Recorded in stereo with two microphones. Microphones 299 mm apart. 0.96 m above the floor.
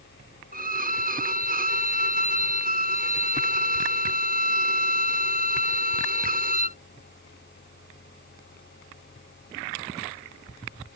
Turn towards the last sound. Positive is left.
turn(degrees=-30)  # may be behind; listen again after turning